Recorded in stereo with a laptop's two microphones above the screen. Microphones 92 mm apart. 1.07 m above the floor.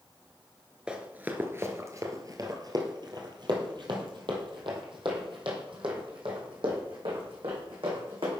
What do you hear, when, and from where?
0.9 s running footsteps: 10° right (ahead or behind), 1.0 m; by 8.4 s 75° right (ahead or behind), 4.5 m